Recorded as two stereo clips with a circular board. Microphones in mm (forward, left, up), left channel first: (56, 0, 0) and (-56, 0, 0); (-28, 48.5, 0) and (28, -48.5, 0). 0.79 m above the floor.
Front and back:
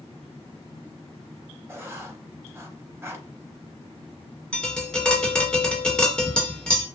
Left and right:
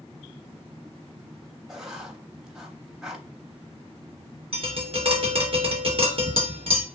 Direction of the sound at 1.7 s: 140° right.